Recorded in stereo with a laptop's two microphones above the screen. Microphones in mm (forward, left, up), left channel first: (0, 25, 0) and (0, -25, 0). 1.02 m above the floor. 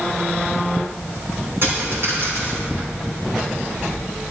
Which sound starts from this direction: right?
A dropped coin, at 1.6 s.